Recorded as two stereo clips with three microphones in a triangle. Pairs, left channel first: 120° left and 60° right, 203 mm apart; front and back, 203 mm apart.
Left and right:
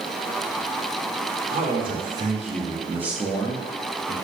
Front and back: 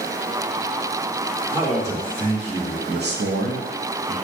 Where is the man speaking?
100° right, 1.4 m; by 4.1 s 165° left, 0.8 m.